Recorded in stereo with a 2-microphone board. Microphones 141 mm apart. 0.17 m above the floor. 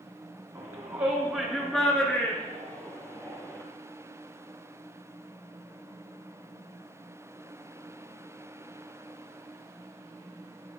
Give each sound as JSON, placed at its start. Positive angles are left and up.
{"t": 0.6, "sound": "a shout", "side_deg": -25, "distance_m": 1.4}